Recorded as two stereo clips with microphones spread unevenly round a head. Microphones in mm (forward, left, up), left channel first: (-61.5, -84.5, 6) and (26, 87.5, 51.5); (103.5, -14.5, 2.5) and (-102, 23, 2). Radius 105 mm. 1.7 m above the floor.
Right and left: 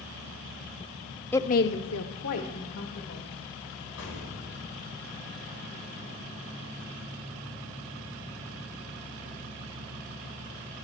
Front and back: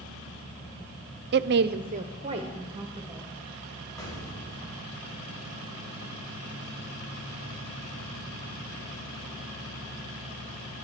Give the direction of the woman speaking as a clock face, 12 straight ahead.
7 o'clock.